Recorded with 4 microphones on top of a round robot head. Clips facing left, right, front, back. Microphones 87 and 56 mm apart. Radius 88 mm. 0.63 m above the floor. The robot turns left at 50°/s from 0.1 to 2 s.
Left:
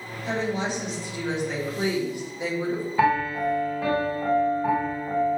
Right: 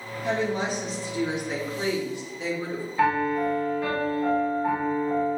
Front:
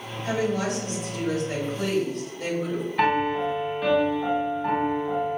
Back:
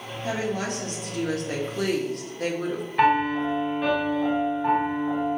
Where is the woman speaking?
110° right, 1.1 m; by 2.9 s 160° left, 1.1 m.